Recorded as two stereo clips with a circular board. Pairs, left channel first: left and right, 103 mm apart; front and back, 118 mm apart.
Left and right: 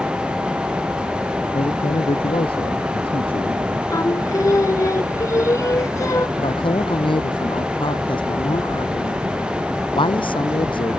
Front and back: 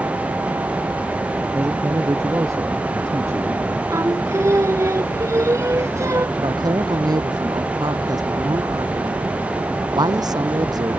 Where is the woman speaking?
125° left.